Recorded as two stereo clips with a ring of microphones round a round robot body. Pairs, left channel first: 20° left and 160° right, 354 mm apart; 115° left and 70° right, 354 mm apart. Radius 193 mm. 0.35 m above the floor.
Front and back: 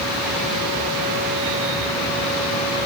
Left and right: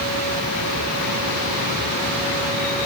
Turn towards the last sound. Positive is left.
No sound to turn to.